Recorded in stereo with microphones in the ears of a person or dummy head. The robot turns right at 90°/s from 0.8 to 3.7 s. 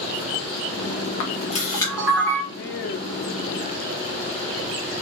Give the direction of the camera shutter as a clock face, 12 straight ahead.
8 o'clock.